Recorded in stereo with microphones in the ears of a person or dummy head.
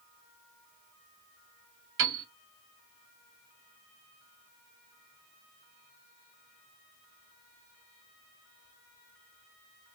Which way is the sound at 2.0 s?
55° right (ahead or behind).